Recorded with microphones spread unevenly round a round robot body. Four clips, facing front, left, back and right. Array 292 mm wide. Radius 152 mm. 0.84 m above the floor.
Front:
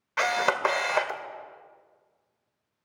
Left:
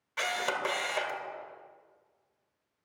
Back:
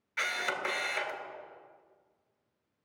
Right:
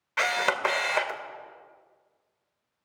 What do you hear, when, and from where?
0.2 s a camera shutter: 25° right, 1.1 m